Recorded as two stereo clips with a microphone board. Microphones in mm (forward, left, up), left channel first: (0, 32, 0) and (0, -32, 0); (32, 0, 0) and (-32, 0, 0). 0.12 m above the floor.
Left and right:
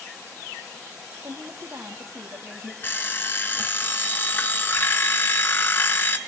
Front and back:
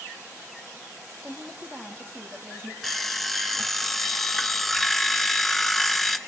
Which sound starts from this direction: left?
An alarm clock, at 2.8 s.